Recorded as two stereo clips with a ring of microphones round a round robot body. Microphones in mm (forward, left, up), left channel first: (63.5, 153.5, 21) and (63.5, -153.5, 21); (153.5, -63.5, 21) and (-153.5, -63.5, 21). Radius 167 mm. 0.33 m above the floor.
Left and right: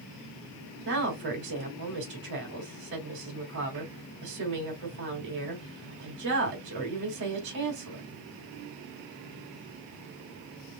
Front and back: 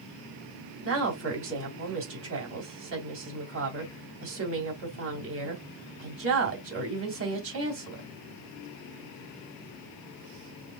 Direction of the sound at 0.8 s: 140° right.